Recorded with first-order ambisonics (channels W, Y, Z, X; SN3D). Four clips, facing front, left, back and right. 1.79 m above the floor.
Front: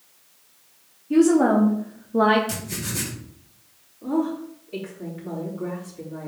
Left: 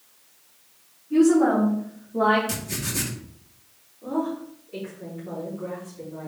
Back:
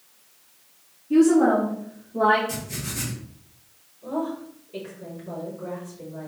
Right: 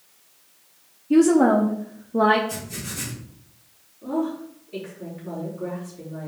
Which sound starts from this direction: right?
A woman speaking, at 1.1 s.